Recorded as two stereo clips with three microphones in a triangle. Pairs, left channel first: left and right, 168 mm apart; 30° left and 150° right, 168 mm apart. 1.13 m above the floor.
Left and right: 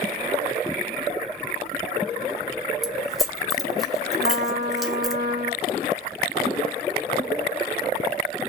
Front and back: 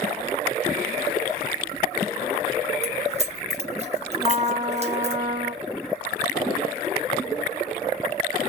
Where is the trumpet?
85° right, 0.9 m.